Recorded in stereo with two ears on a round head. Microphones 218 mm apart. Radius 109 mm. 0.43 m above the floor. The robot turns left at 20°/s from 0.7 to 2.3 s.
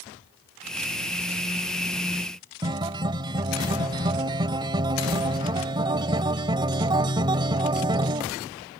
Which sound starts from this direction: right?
A guitar, at 2.6 s.